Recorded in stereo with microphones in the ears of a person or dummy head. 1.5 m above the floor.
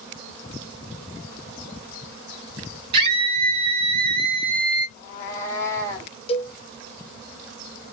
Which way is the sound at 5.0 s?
10° left (ahead or behind).